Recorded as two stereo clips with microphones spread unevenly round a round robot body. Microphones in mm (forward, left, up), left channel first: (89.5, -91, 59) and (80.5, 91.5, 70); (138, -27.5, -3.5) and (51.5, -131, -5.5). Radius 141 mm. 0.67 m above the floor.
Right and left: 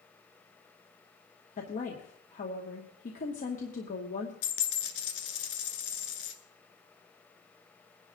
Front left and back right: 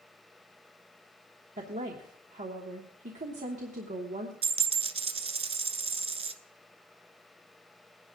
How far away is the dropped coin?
About 0.8 m.